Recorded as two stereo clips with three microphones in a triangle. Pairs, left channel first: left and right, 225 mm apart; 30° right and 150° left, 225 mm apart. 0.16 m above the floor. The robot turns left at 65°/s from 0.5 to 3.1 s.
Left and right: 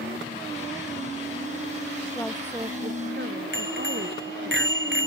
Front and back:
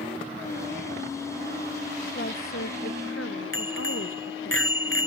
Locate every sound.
2.1 s a woman speaking: 15° left; by 4.5 s 50° right
3.5 s a bicycle bell: 55° right